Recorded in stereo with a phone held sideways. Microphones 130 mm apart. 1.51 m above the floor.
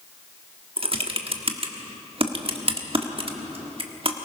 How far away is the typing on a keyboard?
About 1.4 m.